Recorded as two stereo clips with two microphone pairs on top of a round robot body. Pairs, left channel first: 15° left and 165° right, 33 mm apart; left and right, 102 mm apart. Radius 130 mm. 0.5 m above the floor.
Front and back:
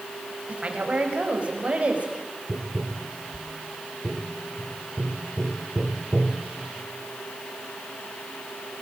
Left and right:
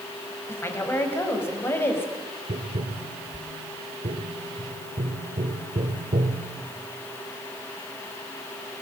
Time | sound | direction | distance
0.5 | a woman speaking | 150° left | 4.5 m
2.5 | tapping | 85° right | 1.5 m